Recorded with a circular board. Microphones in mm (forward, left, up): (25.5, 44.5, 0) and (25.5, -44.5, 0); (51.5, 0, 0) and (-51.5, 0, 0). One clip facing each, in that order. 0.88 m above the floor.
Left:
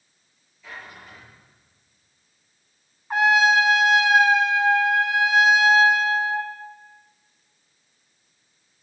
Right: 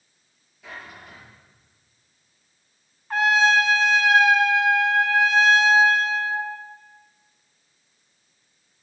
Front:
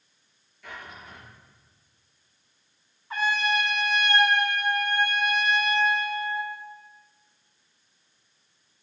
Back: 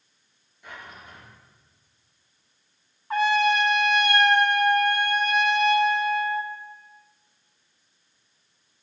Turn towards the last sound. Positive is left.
turn(degrees=165)